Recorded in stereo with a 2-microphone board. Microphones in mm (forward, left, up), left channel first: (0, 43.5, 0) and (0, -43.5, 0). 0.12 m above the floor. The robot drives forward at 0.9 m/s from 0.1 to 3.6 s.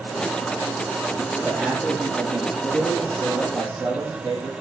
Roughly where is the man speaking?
Centre.